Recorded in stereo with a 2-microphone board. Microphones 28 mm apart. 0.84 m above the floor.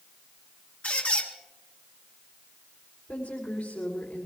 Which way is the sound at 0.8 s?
70° left (ahead or behind).